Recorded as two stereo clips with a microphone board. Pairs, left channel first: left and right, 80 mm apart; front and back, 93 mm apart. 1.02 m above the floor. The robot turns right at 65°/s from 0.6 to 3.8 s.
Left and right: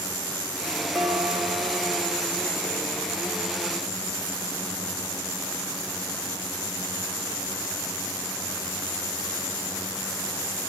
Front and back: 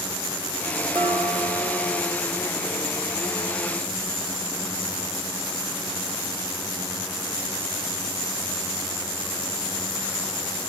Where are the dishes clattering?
175° right, 2.5 m; by 2.1 s 100° right, 2.5 m.